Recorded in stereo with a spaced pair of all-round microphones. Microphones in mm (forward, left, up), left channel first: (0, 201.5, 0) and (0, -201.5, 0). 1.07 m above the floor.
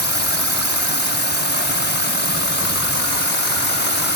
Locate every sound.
0.0 s a drone: 25° left (ahead or behind)